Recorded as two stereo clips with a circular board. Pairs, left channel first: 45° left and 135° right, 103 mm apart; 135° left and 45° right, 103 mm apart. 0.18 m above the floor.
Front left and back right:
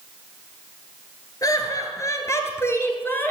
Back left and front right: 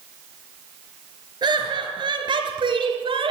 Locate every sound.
1.4 s laughter: 5° right, 3.5 m; by 3.3 s 25° right, 3 m